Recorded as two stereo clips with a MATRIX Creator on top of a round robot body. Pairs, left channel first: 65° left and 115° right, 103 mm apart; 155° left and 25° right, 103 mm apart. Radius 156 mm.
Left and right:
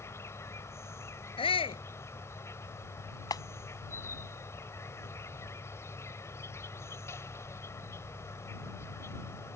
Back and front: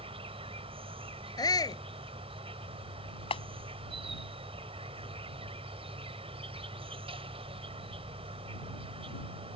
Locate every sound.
0.0 s an insect: 5° left
1.4 s a shout: 105° left
3.3 s a clap: 125° left